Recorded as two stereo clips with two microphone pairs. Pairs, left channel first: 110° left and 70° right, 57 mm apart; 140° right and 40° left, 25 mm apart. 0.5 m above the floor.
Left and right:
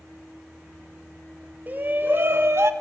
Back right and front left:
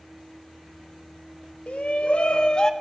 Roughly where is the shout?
Behind right.